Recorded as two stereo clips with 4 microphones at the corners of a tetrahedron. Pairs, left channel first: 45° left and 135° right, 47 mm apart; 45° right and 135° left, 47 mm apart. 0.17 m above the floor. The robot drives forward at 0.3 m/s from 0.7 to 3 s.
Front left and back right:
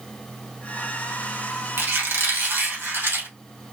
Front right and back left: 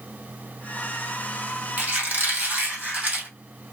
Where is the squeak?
165° right, 1.7 m; by 3.3 s 170° right, 2 m.